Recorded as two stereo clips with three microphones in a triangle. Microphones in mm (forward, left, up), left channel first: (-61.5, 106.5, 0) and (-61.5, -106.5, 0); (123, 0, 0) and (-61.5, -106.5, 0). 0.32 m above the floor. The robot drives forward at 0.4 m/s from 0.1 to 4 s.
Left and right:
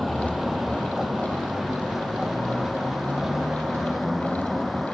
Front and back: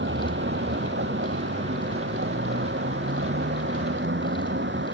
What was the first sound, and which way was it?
A vehicle, straight behind.